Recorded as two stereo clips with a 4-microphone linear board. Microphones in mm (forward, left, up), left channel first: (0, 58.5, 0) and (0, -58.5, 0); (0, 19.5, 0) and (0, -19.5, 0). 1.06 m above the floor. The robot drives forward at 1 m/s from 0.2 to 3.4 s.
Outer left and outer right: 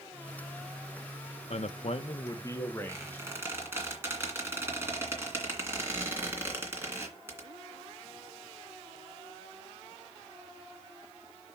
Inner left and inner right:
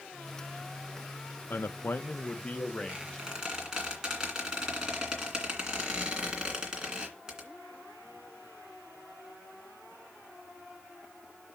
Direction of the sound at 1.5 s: 60° left (ahead or behind).